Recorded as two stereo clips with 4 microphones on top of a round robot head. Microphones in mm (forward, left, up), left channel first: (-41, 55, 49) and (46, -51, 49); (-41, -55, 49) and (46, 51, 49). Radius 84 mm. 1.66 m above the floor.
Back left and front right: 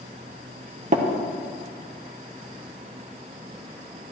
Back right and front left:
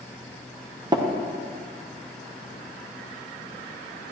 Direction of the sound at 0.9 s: 10° right.